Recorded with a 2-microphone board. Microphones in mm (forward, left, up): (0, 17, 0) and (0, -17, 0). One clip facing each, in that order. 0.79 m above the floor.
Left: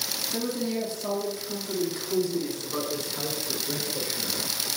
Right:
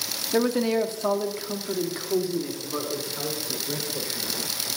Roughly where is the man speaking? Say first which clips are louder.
Right 8 dB; right.